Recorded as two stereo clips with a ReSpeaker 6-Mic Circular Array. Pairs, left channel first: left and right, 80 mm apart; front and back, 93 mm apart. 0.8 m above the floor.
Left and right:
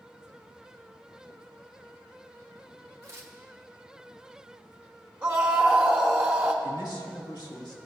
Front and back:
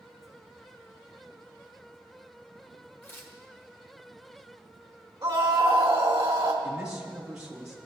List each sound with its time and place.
3.0 s tearing paper: 55° right, 1.0 m
5.2 s a scream: 155° right, 1.0 m
6.6 s a man speaking: 95° left, 1.9 m